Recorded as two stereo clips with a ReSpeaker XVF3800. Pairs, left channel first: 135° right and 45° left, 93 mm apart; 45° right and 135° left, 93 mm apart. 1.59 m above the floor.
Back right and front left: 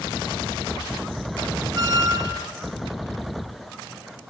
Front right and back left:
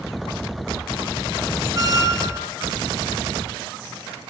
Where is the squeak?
90° left, 2.5 m.